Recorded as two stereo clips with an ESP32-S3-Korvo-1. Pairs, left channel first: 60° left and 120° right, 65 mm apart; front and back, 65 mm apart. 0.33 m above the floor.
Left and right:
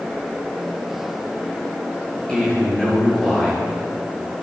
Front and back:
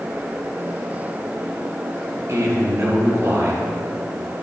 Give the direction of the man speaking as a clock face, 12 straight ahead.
8 o'clock.